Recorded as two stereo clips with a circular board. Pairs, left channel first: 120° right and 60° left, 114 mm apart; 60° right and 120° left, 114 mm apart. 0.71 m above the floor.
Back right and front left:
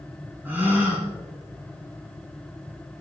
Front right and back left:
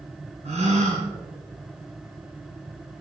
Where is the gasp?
135° left, 2.5 m.